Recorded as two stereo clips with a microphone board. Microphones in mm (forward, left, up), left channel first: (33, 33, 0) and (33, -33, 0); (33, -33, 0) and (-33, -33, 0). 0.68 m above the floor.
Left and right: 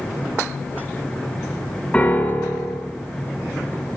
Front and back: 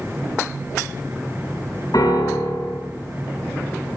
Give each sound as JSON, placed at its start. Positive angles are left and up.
{"t": 1.9, "sound": "a piano", "azimuth_deg": 15, "distance_m": 6.0}